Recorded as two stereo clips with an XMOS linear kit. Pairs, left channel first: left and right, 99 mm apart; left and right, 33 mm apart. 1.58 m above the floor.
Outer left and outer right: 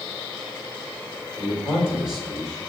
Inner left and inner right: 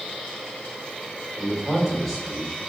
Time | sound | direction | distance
1.4 | a man speaking | 10° right (ahead or behind) | 5.5 m